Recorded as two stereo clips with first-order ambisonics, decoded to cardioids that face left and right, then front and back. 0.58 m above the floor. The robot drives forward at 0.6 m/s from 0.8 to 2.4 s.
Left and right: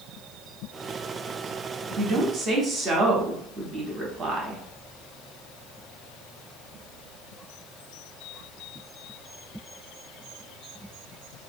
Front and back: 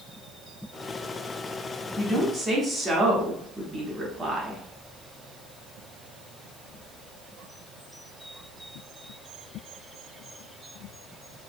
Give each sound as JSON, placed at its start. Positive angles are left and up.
{"t": 2.0, "sound": "a woman speaking", "azimuth_deg": -75, "distance_m": 0.6}